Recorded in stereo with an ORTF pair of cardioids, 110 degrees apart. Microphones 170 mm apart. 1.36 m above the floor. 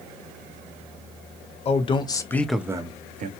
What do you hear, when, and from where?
1.6 s a man speaking: 35° left, 1.0 m; by 3.3 s 55° right, 0.7 m